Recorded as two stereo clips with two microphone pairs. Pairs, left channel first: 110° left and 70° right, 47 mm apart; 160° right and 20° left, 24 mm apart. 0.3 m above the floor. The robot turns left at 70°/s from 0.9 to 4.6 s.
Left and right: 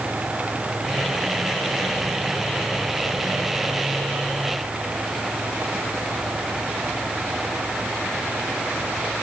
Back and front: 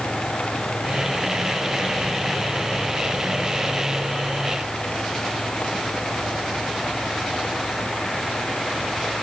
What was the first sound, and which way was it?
Only background noise.